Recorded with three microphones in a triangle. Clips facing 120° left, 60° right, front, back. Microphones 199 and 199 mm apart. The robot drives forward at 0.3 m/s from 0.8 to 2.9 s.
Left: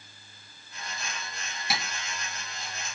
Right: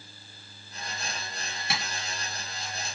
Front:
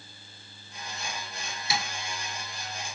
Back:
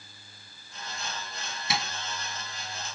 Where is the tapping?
155° right, 2.5 m.